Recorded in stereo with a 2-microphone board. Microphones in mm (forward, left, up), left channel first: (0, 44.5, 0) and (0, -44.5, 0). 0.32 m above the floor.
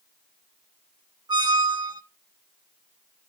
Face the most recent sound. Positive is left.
turn(degrees=-60)  # may be behind; listen again after turning